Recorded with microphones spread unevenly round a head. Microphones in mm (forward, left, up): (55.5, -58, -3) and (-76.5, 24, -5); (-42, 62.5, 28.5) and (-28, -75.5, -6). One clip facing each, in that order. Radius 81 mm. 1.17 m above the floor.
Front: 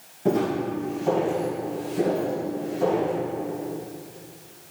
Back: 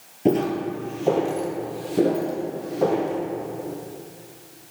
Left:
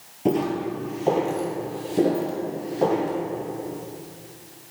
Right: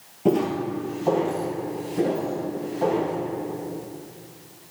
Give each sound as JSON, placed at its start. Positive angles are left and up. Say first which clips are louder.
{"t": 0.2, "sound": "footsteps", "louder": "back 2 dB, right 1 dB", "azimuth_deg": 165, "distance_m": 1.3}